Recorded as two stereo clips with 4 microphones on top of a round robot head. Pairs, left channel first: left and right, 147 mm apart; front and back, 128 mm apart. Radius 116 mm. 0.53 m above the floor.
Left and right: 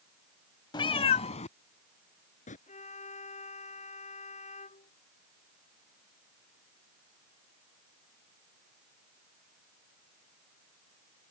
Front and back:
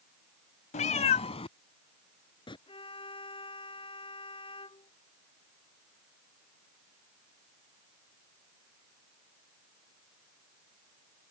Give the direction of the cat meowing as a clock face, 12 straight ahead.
11 o'clock.